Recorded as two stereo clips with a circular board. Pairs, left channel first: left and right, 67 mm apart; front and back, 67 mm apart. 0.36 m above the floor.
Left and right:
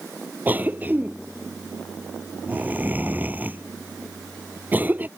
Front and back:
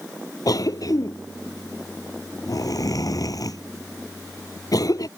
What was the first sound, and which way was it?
A cough, 25° right.